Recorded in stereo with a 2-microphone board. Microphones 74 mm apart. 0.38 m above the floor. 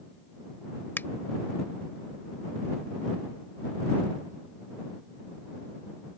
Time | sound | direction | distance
1.0 | a finger snap | 30° left (ahead or behind) | ?